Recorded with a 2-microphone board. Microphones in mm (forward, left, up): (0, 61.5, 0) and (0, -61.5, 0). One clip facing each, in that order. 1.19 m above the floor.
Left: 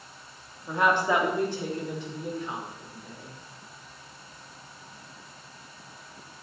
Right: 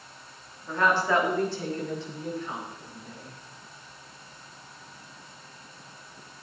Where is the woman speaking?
15° left (ahead or behind), 3 m.